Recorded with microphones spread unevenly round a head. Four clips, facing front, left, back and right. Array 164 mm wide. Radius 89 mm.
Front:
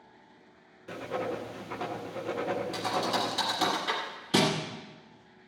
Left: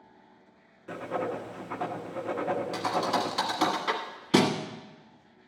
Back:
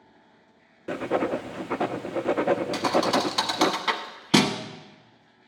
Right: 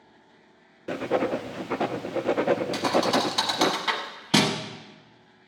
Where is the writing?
140° right, 0.5 m.